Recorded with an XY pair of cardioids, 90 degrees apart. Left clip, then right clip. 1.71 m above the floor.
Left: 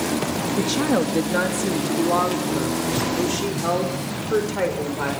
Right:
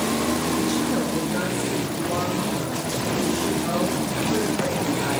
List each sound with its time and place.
0.6 s a woman speaking: 60° left, 2.5 m; by 5.1 s 70° left, 7 m